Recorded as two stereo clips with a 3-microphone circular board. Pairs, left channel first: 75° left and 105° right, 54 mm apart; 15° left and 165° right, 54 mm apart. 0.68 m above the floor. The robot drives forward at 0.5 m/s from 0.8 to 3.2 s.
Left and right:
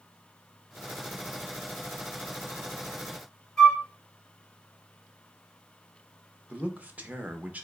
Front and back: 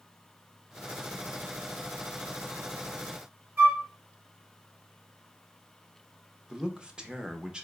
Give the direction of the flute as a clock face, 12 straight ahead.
7 o'clock.